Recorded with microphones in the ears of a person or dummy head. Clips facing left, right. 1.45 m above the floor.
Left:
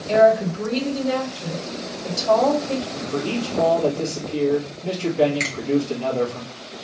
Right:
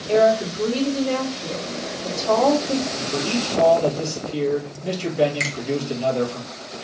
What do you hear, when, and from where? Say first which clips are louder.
0.1 s a woman speaking: left 1 dB; 10° left (ahead or behind), 1.9 m
2.9 s a man speaking: even; 20° right (ahead or behind), 1.7 m
5.4 s a finger snap: left 1 dB; 10° right (ahead or behind), 1.1 m